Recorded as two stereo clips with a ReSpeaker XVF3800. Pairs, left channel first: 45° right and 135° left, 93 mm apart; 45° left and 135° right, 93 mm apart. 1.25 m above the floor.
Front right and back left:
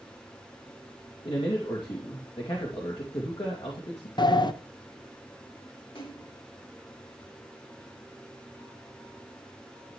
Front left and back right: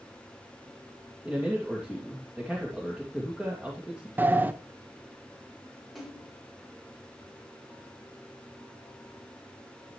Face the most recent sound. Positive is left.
turn(degrees=-45)